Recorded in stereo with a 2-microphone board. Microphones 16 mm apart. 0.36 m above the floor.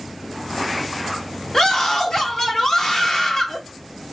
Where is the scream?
45° left (ahead or behind), 1.4 m.